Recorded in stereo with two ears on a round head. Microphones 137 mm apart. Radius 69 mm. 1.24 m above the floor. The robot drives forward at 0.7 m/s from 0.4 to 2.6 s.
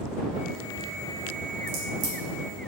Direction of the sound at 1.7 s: 65° right (ahead or behind).